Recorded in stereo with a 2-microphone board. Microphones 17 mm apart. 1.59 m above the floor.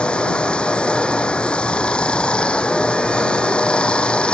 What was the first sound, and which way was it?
Running water, 80° left.